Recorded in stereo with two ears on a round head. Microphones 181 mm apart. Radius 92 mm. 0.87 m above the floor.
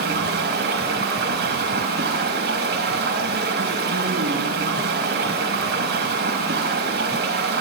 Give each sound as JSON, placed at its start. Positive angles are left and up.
{"t": 0.0, "sound": "running water", "side_deg": -55, "distance_m": 4.0}